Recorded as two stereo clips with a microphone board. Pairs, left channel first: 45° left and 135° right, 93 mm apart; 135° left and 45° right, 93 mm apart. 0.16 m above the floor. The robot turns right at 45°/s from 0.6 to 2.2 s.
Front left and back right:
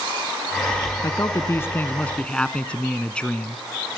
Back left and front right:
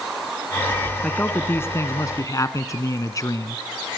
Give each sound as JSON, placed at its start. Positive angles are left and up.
{"t": 1.0, "sound": "a man speaking", "azimuth_deg": 65, "distance_m": 1.5}